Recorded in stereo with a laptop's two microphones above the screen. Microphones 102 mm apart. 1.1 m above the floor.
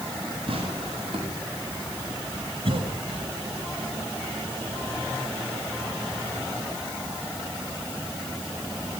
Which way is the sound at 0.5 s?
65° right (ahead or behind).